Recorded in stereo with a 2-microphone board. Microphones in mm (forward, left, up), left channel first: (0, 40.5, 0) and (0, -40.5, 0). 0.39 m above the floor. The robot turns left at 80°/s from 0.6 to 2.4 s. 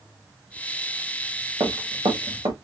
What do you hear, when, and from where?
1.6 s running footsteps: 40° right (ahead or behind), 3 m; by 2.5 s 75° right (ahead or behind), 3 m